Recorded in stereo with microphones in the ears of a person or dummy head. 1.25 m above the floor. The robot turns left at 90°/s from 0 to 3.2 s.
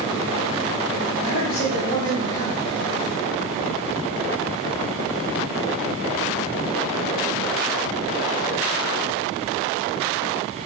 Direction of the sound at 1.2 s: 160° left.